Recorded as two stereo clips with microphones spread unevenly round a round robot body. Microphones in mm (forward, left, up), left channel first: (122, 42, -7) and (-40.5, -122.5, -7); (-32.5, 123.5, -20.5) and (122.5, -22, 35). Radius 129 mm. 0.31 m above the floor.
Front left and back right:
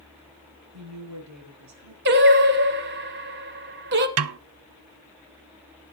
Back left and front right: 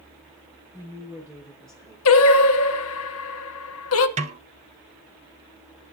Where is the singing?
170° left, 0.9 m.